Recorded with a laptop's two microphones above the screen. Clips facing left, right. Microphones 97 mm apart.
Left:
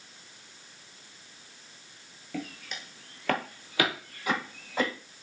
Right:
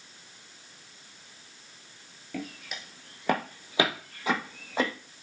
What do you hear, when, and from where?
2.3 s footsteps: centre (ahead or behind), 1.0 m; by 4.9 s 25° right (ahead or behind), 2 m